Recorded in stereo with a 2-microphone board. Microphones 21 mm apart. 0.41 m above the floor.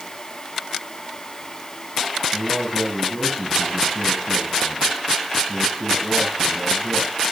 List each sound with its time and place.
2.3 s a man speaking: 45° right (ahead or behind), 8 m